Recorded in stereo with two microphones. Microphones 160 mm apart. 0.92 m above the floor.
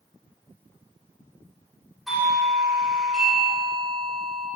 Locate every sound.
2.1 s a doorbell: centre (ahead or behind), 5 m